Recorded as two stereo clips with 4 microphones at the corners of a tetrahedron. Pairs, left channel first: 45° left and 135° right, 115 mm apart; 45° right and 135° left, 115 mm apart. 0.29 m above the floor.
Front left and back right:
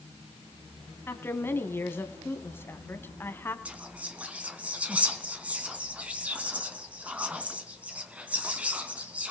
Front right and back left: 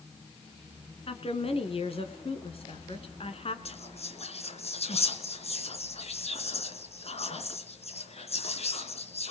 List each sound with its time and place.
1.1 s a woman speaking: 25° right, 2 m
3.6 s whispering: 55° right, 3 m